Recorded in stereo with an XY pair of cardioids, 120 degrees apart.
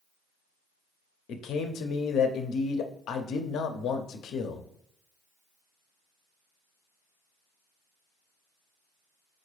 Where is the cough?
I don't hear a cough.